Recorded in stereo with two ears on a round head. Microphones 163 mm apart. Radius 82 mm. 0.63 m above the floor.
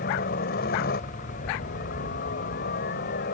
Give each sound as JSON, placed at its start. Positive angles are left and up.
{"t": 0.0, "sound": "a helicopter", "side_deg": 55}